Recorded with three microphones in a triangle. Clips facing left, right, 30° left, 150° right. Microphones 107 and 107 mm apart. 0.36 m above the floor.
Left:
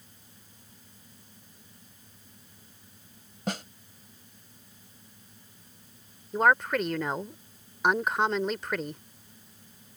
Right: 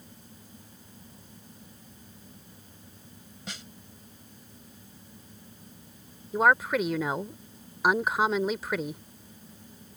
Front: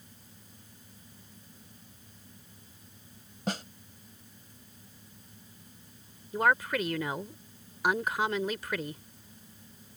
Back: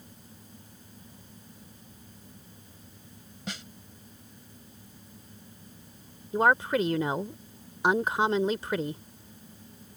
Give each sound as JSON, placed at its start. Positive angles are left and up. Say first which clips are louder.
{"t": 3.5, "sound": "a snare drum", "louder": "left 11 dB, front 6 dB", "azimuth_deg": 65}
{"t": 6.3, "sound": "a woman speaking", "louder": "right 1 dB, back 4 dB", "azimuth_deg": -170}